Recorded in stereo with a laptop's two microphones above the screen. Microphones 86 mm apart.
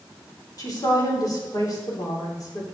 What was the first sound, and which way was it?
A woman speaking, 45° left (ahead or behind).